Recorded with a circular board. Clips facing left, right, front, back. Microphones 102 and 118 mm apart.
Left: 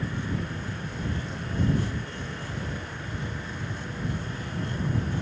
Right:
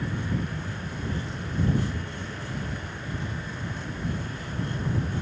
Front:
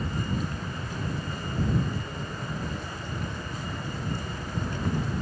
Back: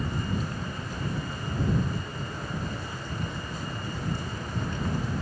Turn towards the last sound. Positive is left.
No sound to turn to.